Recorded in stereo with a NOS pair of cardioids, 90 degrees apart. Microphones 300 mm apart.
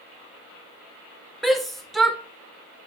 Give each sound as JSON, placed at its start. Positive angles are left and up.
{"t": 1.4, "sound": "a shout", "azimuth_deg": 0, "distance_m": 0.8}